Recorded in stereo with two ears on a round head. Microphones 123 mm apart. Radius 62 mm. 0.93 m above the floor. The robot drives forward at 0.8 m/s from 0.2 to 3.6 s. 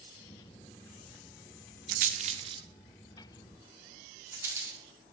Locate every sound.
1.9 s a rattle: 70° right (ahead or behind), 0.5 m; by 4.8 s 20° right (ahead or behind), 1.6 m